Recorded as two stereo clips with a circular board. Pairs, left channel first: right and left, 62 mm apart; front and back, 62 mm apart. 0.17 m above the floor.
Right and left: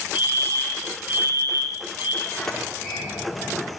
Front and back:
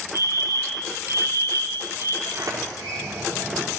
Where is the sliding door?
175° right, 7 m.